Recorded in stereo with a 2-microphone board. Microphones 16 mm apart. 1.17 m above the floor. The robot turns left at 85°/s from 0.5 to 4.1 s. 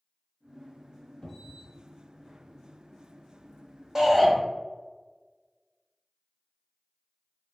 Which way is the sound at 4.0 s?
25° right (ahead or behind).